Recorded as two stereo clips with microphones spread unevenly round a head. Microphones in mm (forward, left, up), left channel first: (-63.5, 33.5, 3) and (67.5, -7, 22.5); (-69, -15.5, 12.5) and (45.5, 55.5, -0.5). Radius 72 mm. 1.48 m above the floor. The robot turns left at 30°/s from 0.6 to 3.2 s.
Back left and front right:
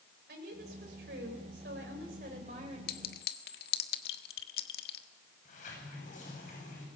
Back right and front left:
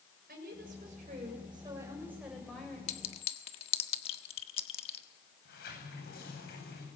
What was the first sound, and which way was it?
A woman speaking, 5° right.